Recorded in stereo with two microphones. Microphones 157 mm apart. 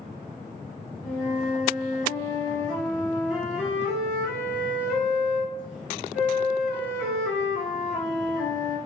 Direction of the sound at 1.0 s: 5° right (ahead or behind).